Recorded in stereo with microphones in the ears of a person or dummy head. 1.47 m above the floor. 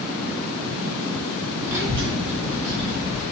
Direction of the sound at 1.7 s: 15° right (ahead or behind).